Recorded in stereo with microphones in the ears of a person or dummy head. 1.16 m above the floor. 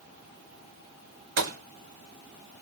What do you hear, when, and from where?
1.4 s a gunshot: 60° right (ahead or behind), 1.6 m